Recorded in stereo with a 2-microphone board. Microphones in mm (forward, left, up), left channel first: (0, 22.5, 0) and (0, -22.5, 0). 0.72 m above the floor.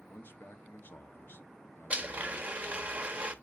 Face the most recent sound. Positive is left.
turn(degrees=-30)  # may be behind; listen again after turning